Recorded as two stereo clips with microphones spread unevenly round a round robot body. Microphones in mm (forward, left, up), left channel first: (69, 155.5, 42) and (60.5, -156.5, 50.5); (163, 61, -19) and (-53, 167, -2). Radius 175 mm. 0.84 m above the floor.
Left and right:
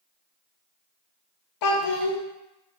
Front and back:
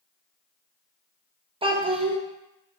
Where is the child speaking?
80° left, 0.7 m.